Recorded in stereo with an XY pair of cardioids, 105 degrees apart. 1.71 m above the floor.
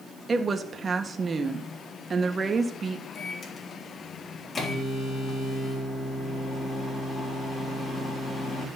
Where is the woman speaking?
30° right, 1.6 m.